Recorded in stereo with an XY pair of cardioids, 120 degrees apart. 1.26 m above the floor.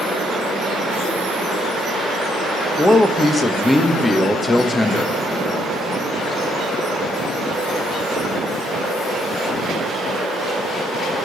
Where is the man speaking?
15° left, 1.0 m.